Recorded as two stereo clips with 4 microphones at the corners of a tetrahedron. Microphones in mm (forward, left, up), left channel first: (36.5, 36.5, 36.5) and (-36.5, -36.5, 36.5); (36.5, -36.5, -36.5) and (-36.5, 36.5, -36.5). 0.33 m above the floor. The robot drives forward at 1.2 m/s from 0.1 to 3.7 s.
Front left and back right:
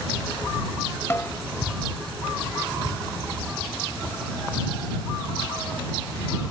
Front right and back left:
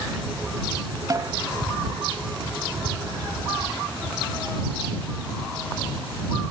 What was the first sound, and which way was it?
A snare drum, 100° left.